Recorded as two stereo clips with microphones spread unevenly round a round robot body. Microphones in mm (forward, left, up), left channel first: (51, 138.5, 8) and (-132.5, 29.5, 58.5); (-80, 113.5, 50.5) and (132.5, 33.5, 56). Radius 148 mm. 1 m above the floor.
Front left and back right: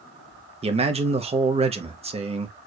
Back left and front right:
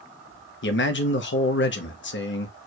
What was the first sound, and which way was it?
A man speaking, 145° left.